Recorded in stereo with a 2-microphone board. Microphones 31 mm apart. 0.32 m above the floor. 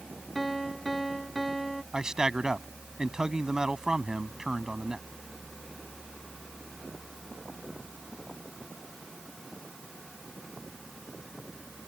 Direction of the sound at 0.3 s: Centre (ahead or behind).